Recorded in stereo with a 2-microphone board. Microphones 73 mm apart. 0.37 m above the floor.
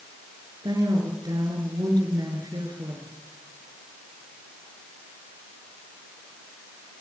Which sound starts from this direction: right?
A woman speaking, at 0.6 s.